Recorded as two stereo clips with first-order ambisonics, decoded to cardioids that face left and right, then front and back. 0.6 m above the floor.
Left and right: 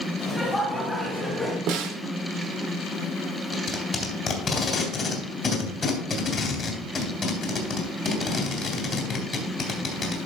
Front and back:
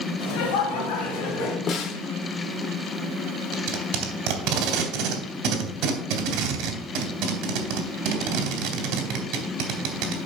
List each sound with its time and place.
0.2 s laughter: 15° left, 2.5 m; by 1.6 s 5° right, 2.5 m
1.7 s a snare drum: 55° right, 0.9 m
3.5 s tape being pulled: 155° left, 2 m